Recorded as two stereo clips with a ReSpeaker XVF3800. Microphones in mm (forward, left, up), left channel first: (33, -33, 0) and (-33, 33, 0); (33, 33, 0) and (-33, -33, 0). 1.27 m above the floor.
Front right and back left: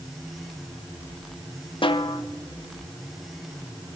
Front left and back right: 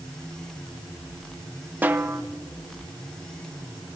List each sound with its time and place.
1.8 s a snare drum: 65° right, 0.7 m